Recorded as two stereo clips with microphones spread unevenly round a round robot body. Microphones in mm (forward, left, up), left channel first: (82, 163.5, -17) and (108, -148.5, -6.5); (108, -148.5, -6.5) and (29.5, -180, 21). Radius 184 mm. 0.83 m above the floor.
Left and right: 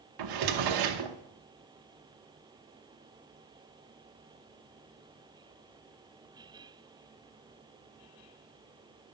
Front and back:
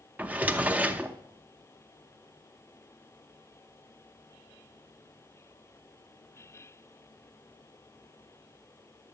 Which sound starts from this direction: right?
A drawer, at 0.2 s.